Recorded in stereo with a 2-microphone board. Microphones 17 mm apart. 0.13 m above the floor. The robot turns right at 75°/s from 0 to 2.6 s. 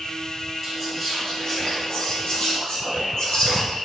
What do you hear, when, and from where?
0.6 s whispering: 60° right, 1.7 m; by 3.8 s 90° left, 1.7 m